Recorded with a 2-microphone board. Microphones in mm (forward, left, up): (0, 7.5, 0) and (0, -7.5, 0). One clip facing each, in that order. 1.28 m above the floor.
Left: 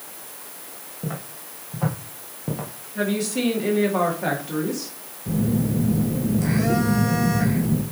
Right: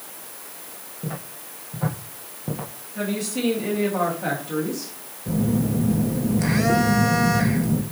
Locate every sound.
1.0 s footsteps: 30° left (ahead or behind), 2 m; by 2.7 s 15° left (ahead or behind), 1.5 m
3.0 s a woman speaking: 15° left (ahead or behind), 2.5 m
5.3 s a phone buzzing: 40° right (ahead or behind), 1.1 m